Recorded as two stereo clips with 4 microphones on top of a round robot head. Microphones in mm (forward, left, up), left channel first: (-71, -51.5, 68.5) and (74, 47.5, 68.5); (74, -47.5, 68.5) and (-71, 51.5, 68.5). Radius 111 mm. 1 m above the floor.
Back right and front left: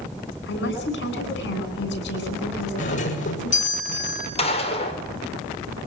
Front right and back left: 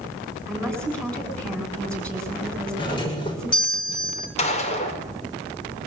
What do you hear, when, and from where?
0.5 s a woman speaking: 120° right, 9.5 m
2.8 s a doorbell: 100° right, 6.5 m
4.4 s a gunshot: 90° right, 4.5 m